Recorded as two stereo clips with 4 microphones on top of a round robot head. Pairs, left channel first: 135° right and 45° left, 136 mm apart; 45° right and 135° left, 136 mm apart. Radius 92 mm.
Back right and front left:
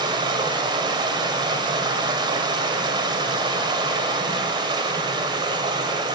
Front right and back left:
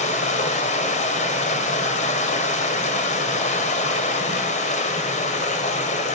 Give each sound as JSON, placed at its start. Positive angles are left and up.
{"t": 0.0, "sound": "running water", "azimuth_deg": -15, "distance_m": 1.8}